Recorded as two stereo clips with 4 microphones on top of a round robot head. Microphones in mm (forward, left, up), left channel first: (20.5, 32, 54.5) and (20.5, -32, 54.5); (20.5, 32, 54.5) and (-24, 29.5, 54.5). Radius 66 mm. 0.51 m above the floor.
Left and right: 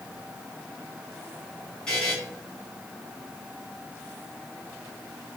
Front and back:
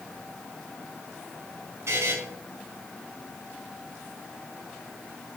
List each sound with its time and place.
1.9 s a buzzer: 170° left, 5.5 m